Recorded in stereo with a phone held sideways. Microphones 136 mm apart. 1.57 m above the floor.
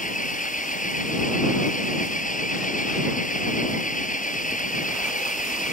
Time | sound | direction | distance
0.0 | an engine running | 80° left | ?